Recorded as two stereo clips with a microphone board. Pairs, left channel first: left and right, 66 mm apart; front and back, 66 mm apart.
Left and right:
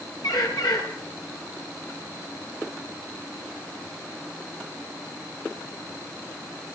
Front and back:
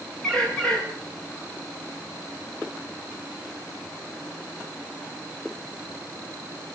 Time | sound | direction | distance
0.2 | a bird | 75° left | 7 m